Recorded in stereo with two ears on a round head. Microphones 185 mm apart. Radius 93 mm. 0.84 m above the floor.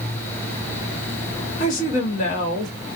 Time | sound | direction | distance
1.6 | a woman speaking | 40° left (ahead or behind) | 1.4 m